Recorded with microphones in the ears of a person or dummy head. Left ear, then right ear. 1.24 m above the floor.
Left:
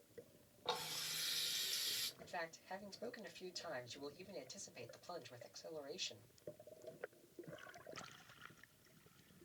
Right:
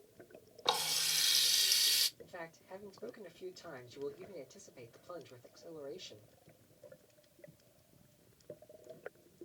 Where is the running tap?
60° right (ahead or behind), 0.9 m.